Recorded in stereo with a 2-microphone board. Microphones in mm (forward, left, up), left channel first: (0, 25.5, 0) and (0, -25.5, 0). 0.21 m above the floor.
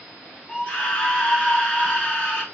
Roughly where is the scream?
Left.